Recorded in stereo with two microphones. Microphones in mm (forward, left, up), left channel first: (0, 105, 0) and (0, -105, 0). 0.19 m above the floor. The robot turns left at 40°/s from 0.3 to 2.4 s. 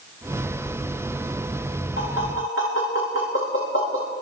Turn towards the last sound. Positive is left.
turn(degrees=75)  # may be behind; listen again after turning